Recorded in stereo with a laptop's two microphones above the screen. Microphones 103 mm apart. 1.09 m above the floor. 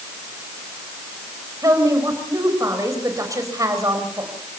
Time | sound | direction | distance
1.6 | a woman speaking | 35° right (ahead or behind) | 5 m